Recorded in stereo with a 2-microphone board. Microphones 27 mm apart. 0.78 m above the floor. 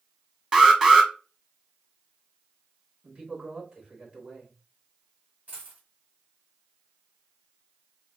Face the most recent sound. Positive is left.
turn(degrees=-75)  # may be behind; listen again after turning